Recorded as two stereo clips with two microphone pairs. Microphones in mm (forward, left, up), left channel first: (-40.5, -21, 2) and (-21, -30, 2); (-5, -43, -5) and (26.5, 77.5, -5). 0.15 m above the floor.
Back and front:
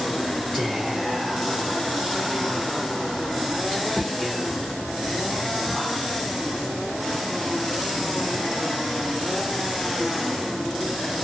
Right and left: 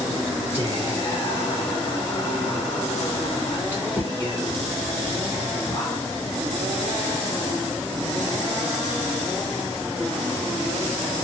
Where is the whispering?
145° right, 1.2 m.